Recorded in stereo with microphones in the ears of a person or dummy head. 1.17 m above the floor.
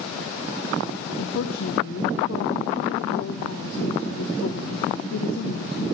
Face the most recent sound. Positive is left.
turn(degrees=60)  # may be behind; listen again after turning